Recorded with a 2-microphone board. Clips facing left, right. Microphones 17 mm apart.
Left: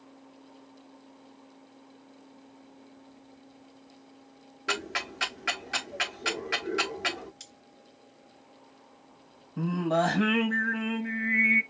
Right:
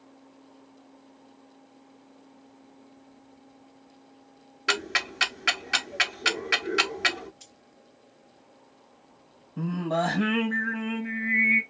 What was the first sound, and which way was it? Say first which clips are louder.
Ticking: right 5 dB; 35° right (ahead or behind).